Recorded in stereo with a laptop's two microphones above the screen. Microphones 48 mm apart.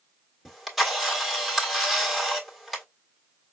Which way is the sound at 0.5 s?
Centre (ahead or behind).